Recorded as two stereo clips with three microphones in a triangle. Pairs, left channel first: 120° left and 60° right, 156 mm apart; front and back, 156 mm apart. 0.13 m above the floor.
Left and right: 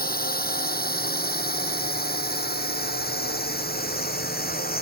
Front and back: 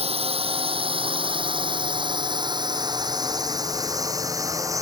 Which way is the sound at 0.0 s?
130° left.